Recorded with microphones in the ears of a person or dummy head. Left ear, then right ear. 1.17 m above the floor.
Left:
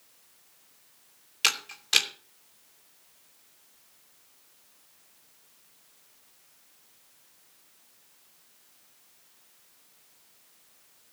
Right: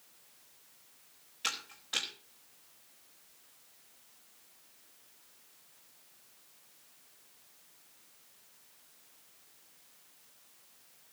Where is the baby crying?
No baby crying in this recording.